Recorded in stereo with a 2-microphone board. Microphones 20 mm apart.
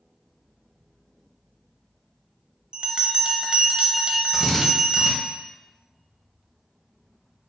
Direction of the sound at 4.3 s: Centre (ahead or behind).